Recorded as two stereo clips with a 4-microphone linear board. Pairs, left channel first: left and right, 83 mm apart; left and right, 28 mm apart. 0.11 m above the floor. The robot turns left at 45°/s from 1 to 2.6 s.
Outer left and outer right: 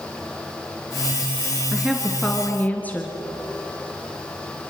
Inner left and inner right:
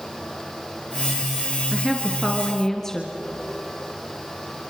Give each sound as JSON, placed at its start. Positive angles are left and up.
{"t": 1.7, "sound": "a woman speaking", "azimuth_deg": -165, "distance_m": 2.0}